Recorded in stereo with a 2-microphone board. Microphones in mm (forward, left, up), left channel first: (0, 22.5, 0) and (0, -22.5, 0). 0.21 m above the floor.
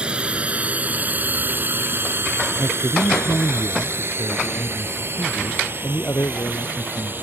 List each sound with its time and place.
0.0 s a drone: 25° right (ahead or behind); by 7.2 s 50° right (ahead or behind)
2.6 s a man speaking: 65° left (ahead or behind)